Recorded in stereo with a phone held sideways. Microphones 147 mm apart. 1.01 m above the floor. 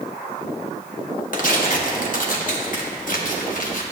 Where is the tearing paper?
60° left (ahead or behind), 1.0 m.